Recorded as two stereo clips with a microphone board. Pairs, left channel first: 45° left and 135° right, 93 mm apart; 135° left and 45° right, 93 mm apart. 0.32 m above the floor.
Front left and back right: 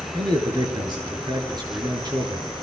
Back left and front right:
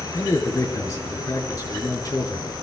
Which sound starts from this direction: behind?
A man speaking, at 0.1 s.